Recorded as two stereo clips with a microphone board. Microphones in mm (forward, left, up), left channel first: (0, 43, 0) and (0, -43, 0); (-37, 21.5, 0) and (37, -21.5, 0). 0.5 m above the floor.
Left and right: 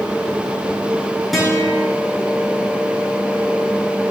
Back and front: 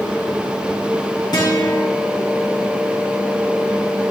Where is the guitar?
Straight behind, 4.5 m.